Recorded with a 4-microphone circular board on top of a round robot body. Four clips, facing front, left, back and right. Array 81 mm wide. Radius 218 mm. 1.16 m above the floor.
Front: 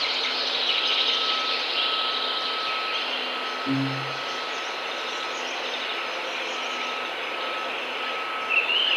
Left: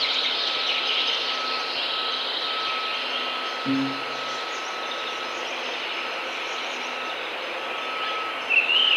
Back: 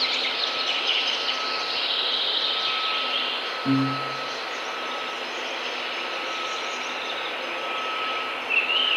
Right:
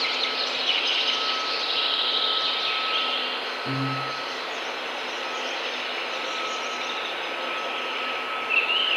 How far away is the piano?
About 5.5 m.